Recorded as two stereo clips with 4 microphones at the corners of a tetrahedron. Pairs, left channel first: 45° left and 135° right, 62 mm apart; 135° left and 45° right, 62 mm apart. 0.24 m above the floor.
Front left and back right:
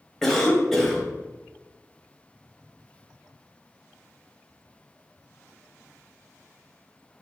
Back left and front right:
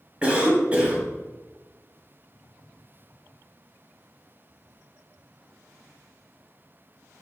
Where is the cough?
25° right, 1.1 m.